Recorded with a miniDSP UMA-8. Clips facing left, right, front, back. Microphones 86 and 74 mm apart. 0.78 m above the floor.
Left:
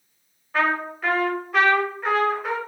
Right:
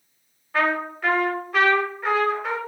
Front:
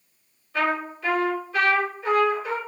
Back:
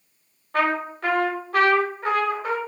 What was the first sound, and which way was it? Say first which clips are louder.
A trumpet: even, back 2 dB; 175° left.